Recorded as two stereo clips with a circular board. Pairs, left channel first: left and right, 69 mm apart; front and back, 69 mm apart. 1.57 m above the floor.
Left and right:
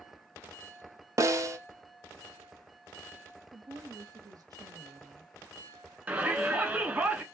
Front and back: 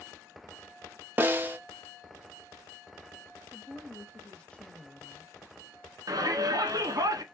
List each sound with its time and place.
1.2 s a snare drum: 125° right, 0.7 m
3.5 s a woman speaking: 75° right, 0.8 m
6.1 s a shout: 155° right, 1.3 m